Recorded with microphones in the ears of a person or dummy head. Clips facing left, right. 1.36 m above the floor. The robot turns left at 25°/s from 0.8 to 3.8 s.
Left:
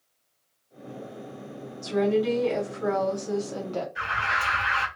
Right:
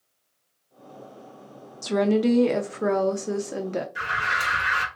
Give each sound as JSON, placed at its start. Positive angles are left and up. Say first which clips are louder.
{"t": 1.8, "sound": "a woman speaking", "louder": "right 2 dB", "azimuth_deg": -100, "distance_m": 0.6}
{"t": 4.0, "sound": "an alarm", "louder": "even", "side_deg": -70, "distance_m": 1.8}